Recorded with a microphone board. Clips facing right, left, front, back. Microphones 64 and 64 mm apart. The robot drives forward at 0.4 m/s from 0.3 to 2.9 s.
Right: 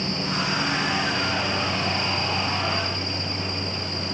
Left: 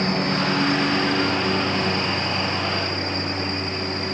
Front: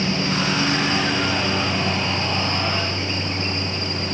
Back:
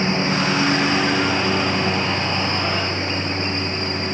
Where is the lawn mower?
120° left; by 4.1 s 125° left.